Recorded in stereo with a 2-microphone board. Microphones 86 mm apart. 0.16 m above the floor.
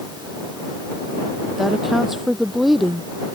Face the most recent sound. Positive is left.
turn(degrees=-5)  # may be behind; listen again after turning